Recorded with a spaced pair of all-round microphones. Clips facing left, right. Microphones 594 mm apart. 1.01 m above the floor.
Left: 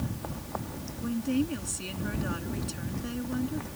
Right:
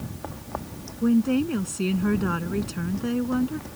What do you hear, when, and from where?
1.0 s a woman speaking: 70° right (ahead or behind)